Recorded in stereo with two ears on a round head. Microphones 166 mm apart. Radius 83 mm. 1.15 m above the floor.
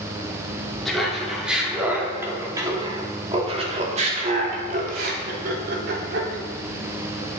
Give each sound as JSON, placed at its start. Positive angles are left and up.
{"t": 0.8, "sound": "laughter", "side_deg": 0, "distance_m": 3.5}